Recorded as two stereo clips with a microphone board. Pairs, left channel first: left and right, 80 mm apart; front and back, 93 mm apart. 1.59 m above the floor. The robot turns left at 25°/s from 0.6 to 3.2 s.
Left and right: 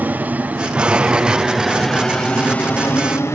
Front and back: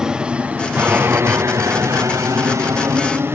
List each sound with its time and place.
0.0 s an aircraft: 110° right; by 3.4 s 130° left